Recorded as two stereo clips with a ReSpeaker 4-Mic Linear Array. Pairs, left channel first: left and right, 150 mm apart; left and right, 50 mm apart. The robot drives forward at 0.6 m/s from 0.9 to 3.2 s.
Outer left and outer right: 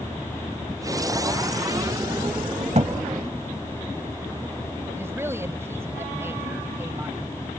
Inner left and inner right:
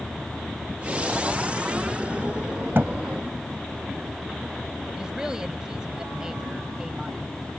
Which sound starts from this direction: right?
A thud, at 2.8 s.